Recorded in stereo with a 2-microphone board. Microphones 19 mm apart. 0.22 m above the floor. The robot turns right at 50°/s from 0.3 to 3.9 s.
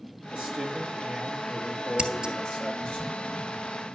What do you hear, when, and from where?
0.3 s a man speaking: 75° right, 4.5 m; by 3.0 s 55° left, 4.5 m
2.0 s scissors: 55° right (ahead or behind), 1.1 m; by 2.3 s 35° right (ahead or behind), 1.1 m